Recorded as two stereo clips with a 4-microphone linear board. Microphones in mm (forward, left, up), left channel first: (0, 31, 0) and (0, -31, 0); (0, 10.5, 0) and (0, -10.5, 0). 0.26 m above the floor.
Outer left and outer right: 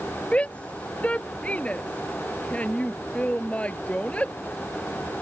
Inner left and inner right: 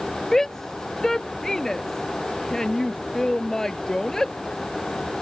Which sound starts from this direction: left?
A shout, at 0.3 s.